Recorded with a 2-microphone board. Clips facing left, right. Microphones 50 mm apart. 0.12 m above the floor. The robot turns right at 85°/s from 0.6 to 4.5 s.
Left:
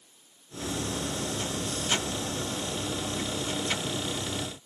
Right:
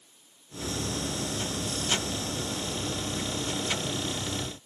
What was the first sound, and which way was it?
Only background noise.